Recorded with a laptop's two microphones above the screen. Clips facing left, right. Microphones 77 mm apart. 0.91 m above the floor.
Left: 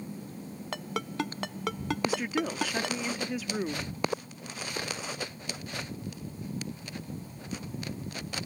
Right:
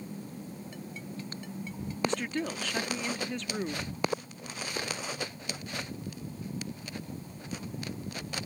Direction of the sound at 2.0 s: 5° left (ahead or behind).